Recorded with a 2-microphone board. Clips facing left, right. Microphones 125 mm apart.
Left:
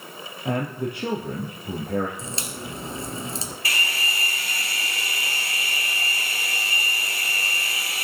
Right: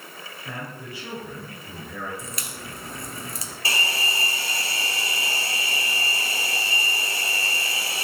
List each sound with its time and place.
0.5 s a man speaking: 60° left (ahead or behind), 2.5 m
2.2 s a crack: 25° left (ahead or behind), 2 m
3.6 s a hair dryer: 30° right (ahead or behind), 1.0 m